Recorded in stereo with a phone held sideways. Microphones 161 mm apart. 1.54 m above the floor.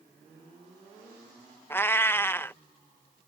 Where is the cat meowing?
15° left (ahead or behind).